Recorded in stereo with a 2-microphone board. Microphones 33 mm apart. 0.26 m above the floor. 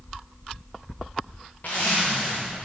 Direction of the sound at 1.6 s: 50° left (ahead or behind).